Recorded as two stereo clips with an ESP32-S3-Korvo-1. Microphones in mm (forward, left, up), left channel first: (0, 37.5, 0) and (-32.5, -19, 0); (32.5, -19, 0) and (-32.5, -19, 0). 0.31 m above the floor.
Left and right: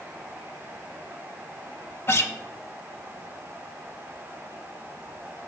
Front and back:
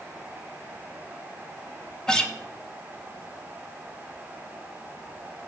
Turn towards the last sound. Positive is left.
turn(degrees=75)